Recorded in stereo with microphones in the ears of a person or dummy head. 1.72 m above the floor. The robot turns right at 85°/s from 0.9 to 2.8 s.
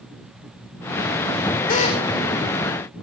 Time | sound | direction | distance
1.7 | a drill | 135° left | 4.5 m